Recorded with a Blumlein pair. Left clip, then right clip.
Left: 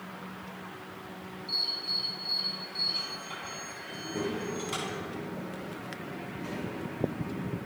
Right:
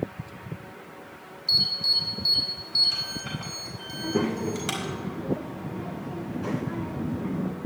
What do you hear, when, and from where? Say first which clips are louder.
1.5 s an alarm: right 8 dB; 50° right, 4.5 m
3.9 s a child speaking: right 7 dB; 35° right, 0.7 m